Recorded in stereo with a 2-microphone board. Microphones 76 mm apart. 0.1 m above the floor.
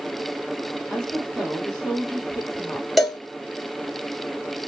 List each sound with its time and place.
0.9 s a woman speaking: 5° left (ahead or behind), 2.5 m
3.0 s a cowbell: centre (ahead or behind), 1.4 m